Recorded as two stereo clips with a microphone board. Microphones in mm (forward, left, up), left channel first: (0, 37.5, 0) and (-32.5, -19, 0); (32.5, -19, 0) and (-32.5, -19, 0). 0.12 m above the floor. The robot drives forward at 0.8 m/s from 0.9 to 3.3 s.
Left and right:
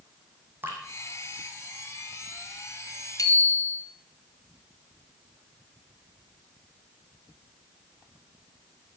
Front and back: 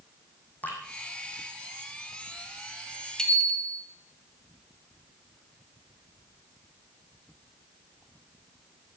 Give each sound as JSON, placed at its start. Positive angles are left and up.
{"t": 0.6, "sound": "dripping", "azimuth_deg": -60, "distance_m": 3.0}
{"t": 3.2, "sound": "a bicycle bell", "azimuth_deg": 80, "distance_m": 2.0}